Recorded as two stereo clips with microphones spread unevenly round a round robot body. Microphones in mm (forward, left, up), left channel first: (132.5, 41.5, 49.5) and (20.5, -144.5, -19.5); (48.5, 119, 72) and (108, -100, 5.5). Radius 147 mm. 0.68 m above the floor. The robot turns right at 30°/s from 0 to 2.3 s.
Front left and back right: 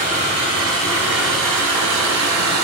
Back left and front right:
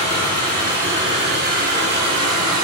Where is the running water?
170° left, 0.9 m; by 2.6 s 120° right, 0.9 m.